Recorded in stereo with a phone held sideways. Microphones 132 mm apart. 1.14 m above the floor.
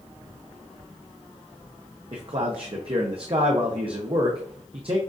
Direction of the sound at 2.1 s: 45° right (ahead or behind).